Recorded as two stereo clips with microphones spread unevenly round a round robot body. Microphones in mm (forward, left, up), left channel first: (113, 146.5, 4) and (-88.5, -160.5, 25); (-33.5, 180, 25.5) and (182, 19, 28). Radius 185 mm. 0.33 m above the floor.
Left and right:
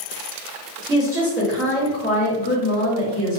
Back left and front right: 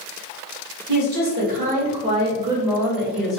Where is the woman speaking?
50° right, 1.4 m; by 3.4 s 55° left, 1.5 m.